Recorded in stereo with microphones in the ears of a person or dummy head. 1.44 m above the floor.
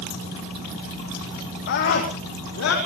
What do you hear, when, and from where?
1.7 s a scream: 45° left (ahead or behind), 3 m; by 2.8 s 70° left (ahead or behind), 3.5 m